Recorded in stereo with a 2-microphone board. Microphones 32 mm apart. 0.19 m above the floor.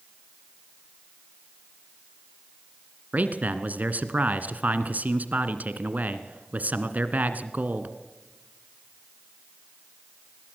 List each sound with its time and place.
3.1 s a man speaking: 55° right (ahead or behind), 1.7 m